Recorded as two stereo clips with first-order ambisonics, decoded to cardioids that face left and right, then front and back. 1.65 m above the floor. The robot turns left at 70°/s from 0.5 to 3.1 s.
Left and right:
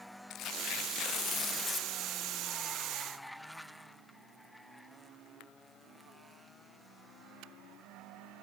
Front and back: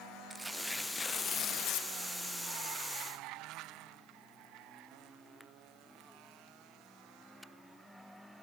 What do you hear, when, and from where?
0.3 s tearing paper: 100° left, 0.5 m; by 1.9 s 5° left, 0.5 m